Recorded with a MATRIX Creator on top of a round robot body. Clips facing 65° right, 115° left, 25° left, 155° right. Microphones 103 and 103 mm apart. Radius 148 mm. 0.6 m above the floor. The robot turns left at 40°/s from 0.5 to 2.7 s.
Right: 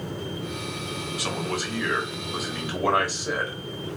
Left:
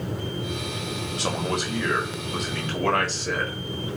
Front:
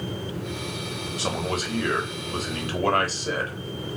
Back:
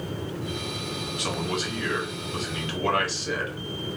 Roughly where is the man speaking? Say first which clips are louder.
Left 3 dB, front 2 dB; ahead left.